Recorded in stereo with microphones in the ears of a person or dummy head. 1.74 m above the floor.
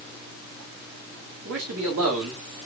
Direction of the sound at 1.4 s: 70° right (ahead or behind).